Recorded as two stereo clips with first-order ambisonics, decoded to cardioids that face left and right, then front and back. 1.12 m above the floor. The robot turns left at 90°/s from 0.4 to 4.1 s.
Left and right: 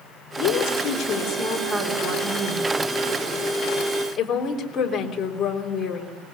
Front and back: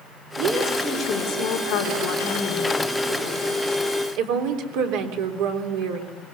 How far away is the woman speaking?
About 3.5 m.